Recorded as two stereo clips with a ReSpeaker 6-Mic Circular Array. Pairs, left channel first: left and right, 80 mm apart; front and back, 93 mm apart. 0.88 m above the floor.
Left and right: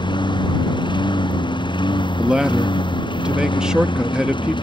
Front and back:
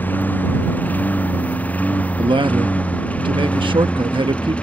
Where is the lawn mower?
70° left; by 4.6 s 75° left.